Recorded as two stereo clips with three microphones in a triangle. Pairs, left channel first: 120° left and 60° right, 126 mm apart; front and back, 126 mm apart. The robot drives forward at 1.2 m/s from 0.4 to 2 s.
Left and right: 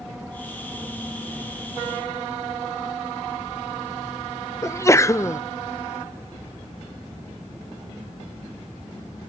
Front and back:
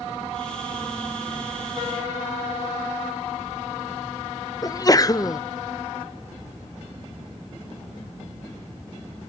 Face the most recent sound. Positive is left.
turn(degrees=55)